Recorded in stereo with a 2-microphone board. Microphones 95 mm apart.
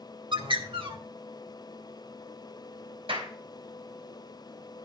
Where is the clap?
70° right (ahead or behind), 3 m.